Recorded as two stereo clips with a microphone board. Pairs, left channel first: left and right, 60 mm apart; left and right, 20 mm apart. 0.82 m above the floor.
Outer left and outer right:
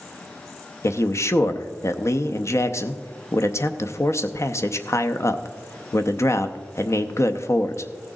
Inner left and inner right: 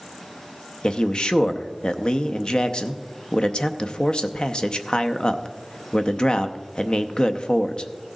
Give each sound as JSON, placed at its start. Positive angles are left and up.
{"t": 0.8, "sound": "a man speaking", "side_deg": 50, "distance_m": 0.6}